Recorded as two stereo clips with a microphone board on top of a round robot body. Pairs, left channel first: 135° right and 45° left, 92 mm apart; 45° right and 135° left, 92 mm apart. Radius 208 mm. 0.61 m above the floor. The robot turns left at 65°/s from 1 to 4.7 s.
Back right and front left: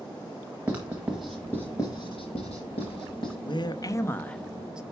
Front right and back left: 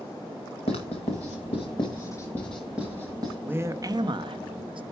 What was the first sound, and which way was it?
Writing, 30° right.